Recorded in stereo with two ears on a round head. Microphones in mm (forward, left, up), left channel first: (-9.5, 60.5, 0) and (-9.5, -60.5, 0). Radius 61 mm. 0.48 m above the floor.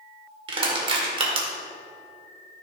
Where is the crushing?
40° right (ahead or behind), 1.9 m.